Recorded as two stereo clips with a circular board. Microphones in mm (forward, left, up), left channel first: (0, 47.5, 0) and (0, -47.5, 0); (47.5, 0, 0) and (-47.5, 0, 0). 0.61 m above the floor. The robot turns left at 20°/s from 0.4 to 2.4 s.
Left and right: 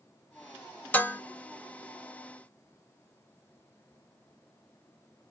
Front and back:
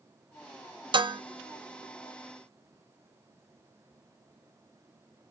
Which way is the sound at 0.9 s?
160° left.